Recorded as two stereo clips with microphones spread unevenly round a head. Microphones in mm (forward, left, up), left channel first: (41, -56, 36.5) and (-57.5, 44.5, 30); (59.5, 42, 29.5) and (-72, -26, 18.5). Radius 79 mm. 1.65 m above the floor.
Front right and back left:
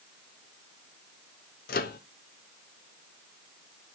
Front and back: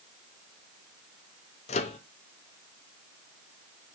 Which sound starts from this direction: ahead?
A microwave, at 1.7 s.